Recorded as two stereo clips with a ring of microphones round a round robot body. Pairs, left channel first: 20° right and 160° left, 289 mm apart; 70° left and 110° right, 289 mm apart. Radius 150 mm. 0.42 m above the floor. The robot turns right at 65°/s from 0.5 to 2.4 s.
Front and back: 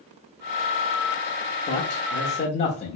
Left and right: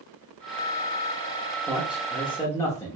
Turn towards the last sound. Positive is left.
turn(degrees=0)